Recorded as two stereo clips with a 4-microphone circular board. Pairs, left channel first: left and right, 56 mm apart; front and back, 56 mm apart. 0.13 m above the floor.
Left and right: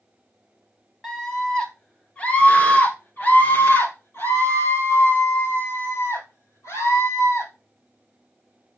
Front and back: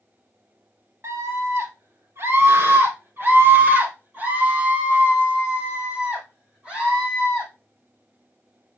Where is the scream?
170° left, 2.5 m; by 7.5 s 105° left, 5 m.